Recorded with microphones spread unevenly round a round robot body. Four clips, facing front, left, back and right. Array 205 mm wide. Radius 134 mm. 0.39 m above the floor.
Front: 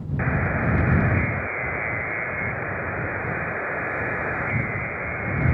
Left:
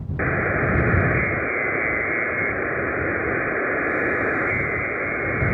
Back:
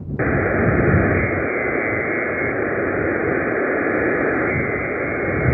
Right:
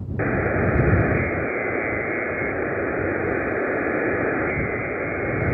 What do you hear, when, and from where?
0.2 s a buzzer: 170° right